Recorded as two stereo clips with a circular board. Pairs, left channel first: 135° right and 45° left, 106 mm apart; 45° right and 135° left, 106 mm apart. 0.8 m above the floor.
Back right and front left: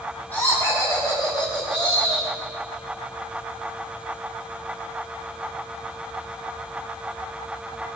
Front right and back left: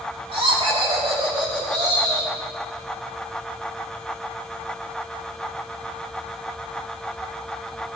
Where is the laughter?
155° left, 1.8 m; by 2.3 s 170° right, 3.5 m.